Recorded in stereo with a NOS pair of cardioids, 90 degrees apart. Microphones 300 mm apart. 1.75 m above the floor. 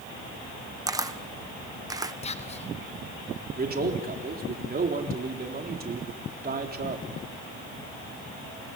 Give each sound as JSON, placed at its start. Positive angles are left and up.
{"t": 0.9, "sound": "a camera shutter", "azimuth_deg": -10, "distance_m": 1.2}
{"t": 2.2, "sound": "whispering", "azimuth_deg": 20, "distance_m": 0.9}
{"t": 3.6, "sound": "a man speaking", "azimuth_deg": -30, "distance_m": 3.5}